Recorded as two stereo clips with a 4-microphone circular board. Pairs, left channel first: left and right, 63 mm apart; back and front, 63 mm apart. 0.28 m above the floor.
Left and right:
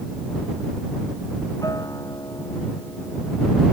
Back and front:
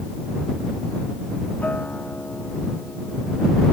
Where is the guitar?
115° left.